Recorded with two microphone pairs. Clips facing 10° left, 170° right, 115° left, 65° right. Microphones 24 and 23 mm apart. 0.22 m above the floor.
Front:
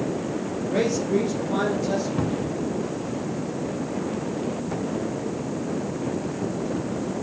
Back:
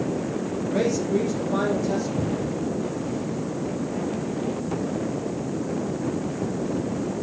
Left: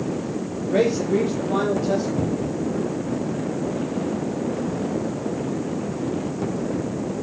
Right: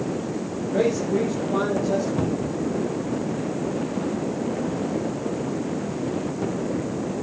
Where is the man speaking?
90° left, 4.5 m; by 2.1 s 75° left, 5 m.